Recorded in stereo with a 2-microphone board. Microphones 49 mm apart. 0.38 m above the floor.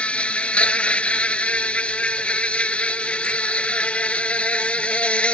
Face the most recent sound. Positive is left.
turn(degrees=25)  # may be behind; listen again after turning